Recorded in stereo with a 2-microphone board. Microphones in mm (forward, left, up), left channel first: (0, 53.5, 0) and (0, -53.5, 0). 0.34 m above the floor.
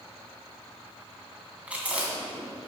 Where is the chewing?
15° right (ahead or behind), 2 m.